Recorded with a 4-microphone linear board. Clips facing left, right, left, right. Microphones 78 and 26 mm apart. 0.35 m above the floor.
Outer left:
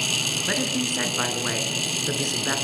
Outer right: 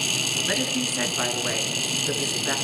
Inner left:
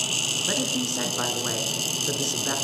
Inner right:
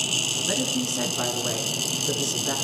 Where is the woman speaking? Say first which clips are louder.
Outer left 1 dB, even; 15° left (ahead or behind), 4.5 m.